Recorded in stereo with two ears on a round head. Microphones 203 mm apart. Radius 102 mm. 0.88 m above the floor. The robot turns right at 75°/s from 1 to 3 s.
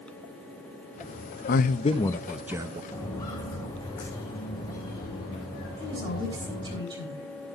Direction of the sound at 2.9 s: 10° left (ahead or behind).